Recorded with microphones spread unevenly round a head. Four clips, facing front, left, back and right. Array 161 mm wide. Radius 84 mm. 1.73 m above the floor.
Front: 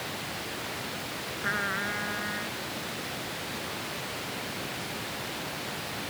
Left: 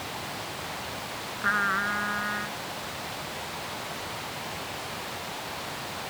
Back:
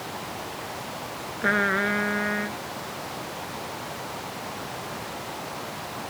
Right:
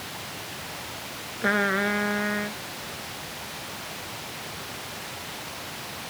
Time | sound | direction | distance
1.4 | a trumpet | 145° right | ?